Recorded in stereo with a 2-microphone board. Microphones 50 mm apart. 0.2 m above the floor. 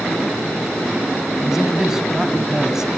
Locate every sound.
1.4 s a man speaking: 10° right (ahead or behind), 1.3 m